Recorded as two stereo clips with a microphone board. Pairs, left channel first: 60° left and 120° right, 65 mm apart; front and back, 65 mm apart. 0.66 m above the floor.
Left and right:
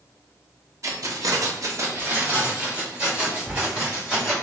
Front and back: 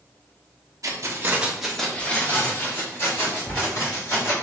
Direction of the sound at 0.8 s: 155° right.